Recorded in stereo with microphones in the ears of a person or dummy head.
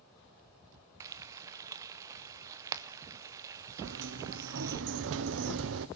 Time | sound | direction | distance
1.0 | frying | 15° right (ahead or behind) | 0.7 m
3.8 | a sliding door | 65° right (ahead or behind) | 0.8 m